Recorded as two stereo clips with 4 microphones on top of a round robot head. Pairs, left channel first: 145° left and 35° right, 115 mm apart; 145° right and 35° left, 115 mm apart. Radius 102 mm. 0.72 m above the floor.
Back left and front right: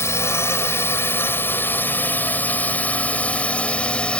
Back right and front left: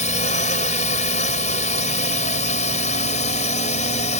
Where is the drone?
150° right; by 4.2 s 135° right.